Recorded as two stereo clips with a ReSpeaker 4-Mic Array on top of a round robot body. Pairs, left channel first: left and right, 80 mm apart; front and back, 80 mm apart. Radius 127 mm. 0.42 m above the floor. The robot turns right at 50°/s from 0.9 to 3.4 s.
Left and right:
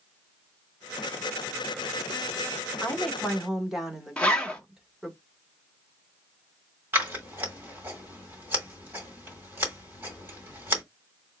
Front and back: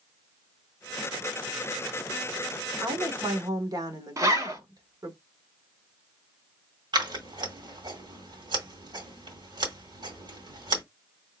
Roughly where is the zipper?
Behind.